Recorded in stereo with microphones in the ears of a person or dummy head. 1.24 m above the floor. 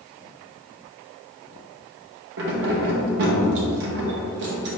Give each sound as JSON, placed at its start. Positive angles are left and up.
{"t": 2.4, "sound": "keys jangling", "side_deg": -65, "distance_m": 0.8}